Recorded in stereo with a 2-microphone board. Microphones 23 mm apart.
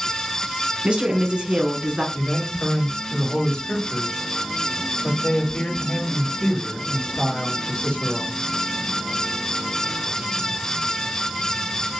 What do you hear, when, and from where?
0.8 s a woman speaking: 60° right (ahead or behind), 2 m
2.1 s a man speaking: 65° left (ahead or behind), 3.5 m